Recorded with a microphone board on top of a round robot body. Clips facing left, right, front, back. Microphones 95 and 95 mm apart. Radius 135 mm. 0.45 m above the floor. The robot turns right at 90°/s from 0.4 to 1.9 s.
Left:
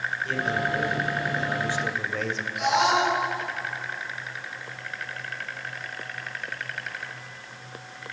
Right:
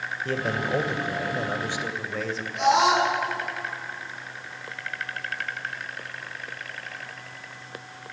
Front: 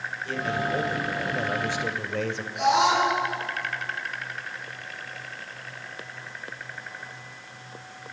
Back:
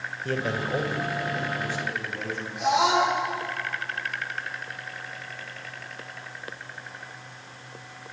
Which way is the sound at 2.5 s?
30° right.